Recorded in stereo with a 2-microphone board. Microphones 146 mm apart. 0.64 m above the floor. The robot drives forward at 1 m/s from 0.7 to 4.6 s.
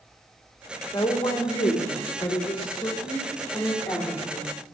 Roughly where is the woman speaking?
Left.